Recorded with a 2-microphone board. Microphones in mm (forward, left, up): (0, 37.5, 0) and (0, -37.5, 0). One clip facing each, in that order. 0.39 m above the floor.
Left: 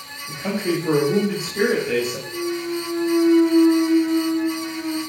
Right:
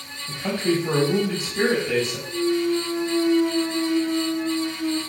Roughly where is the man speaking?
Left.